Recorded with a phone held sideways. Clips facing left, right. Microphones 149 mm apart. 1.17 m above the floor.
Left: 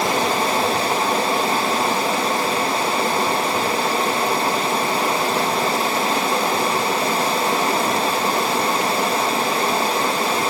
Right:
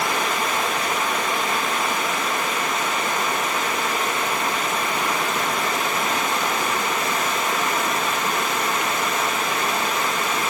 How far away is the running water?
About 1.2 m.